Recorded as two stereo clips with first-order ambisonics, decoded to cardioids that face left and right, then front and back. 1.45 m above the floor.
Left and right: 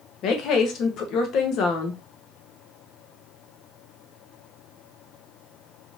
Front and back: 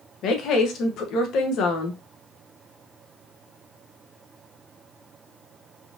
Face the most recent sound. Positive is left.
turn(degrees=45)